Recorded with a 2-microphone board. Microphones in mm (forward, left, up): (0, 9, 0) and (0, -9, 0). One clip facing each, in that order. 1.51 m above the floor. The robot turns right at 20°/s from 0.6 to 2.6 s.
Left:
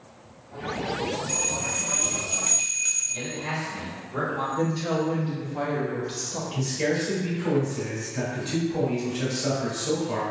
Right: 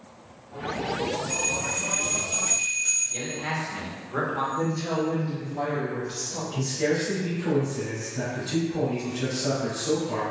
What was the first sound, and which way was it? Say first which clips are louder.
A bell: right 1 dB; 45° left (ahead or behind).